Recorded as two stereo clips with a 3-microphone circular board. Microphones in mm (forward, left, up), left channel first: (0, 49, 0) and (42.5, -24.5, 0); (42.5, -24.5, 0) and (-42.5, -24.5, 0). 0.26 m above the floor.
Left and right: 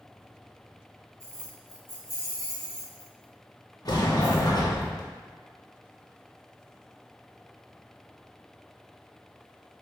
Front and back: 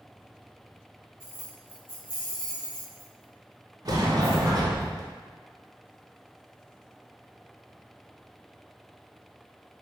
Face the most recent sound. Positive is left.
turn(degrees=150)